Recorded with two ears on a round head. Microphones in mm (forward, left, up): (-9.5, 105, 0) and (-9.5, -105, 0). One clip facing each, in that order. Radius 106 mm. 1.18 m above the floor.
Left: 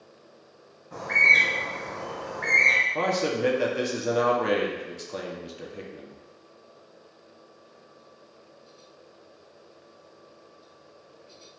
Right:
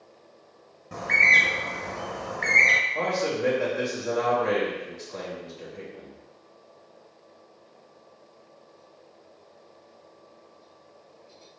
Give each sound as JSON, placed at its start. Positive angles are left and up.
{"t": 0.9, "sound": "a bird", "side_deg": -45, "distance_m": 0.8}
{"t": 3.0, "sound": "a man speaking", "side_deg": 45, "distance_m": 0.8}